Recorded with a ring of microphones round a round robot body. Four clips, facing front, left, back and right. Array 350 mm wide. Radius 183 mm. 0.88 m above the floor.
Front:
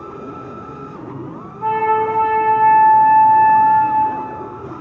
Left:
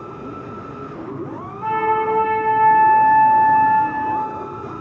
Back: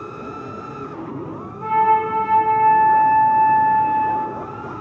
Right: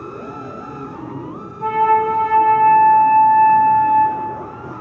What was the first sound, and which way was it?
A flute, 90° right.